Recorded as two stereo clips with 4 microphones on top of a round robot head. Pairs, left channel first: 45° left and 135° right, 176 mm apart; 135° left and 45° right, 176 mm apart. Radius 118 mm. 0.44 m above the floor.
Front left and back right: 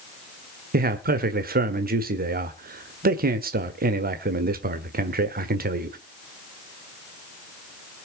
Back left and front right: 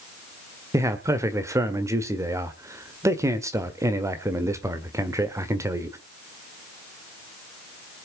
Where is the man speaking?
115° right, 1.6 m.